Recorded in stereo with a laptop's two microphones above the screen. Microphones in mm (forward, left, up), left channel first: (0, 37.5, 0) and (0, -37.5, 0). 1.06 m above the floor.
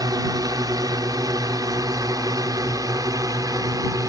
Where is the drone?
55° right (ahead or behind).